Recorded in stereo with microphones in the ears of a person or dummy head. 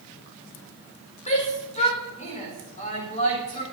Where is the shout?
30° left (ahead or behind), 5.5 m.